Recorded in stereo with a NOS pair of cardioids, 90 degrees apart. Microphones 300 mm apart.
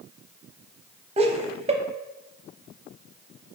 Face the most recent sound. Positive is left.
turn(degrees=-20)